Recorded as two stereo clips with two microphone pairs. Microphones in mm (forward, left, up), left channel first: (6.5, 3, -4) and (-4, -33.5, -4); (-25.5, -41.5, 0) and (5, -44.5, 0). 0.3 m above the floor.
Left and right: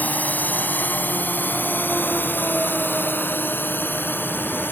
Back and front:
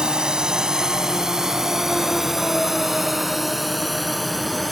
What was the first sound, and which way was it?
A drone, 50° left.